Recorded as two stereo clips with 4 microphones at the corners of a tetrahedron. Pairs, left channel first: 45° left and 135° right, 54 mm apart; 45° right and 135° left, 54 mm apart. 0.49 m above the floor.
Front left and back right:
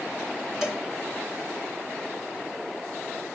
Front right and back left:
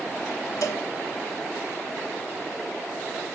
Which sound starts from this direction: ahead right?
A cowbell, at 0.6 s.